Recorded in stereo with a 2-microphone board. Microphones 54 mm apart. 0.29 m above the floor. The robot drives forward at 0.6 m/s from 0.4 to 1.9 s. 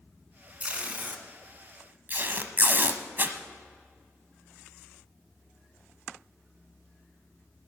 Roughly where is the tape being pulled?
Right.